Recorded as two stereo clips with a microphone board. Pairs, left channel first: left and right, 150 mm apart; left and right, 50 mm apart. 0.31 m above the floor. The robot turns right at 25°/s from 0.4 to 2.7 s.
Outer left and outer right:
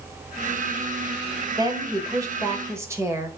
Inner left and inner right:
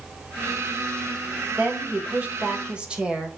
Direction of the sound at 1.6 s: 25° right (ahead or behind).